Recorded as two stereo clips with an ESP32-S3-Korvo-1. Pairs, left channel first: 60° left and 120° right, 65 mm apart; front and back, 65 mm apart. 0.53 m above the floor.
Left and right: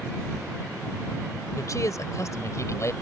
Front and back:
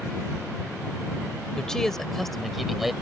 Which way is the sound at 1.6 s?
80° left.